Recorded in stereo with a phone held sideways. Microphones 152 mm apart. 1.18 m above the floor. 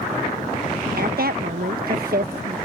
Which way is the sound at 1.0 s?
75° right (ahead or behind).